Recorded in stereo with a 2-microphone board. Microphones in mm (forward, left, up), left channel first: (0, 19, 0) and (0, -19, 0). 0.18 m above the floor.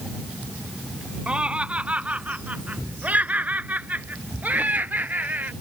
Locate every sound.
1.3 s laughter: 30° right (ahead or behind); by 5.5 s 50° right (ahead or behind)